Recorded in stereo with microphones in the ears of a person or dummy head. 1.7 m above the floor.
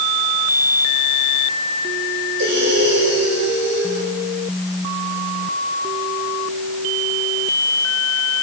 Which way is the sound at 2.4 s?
65° right (ahead or behind).